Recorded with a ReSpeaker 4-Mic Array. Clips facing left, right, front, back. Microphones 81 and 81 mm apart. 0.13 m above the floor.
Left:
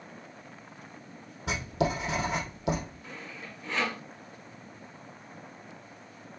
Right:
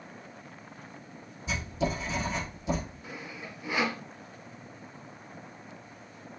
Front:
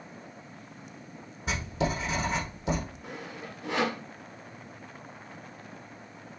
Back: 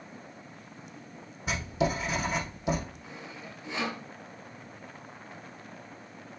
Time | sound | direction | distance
1.5 | writing | 90° left | 3.5 m
3.0 | sawing | 15° right | 0.9 m